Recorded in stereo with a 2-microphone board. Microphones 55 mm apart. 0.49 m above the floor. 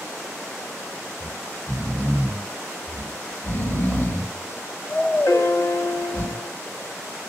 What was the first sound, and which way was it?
Snoring, 40° right (ahead or behind).